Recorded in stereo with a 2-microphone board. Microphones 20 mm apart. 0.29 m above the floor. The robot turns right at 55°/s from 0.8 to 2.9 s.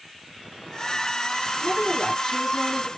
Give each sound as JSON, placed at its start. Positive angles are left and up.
{"t": 1.6, "sound": "a woman speaking", "azimuth_deg": 125, "distance_m": 2.5}